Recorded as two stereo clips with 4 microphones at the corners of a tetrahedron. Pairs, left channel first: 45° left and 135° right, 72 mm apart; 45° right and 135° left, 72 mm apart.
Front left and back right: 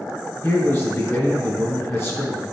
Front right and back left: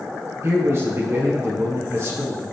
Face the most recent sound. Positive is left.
turn(degrees=90)